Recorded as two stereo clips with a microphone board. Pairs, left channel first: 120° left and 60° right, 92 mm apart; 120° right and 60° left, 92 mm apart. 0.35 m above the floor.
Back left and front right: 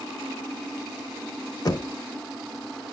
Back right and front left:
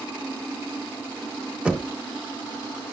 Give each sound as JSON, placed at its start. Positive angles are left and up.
{"t": 1.6, "sound": "knocking", "azimuth_deg": 135, "distance_m": 0.7}